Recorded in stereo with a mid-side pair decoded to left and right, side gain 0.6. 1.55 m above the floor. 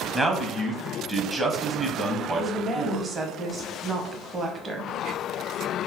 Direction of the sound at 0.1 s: 20° right.